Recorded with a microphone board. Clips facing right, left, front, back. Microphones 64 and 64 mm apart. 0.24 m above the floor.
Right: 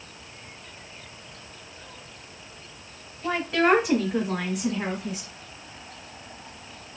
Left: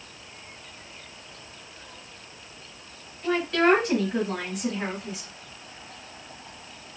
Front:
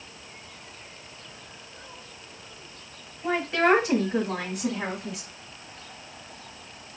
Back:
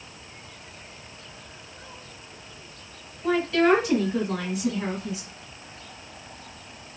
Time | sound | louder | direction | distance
3.2 | a woman speaking | left 1 dB, back 2 dB | 45° right | 1.3 m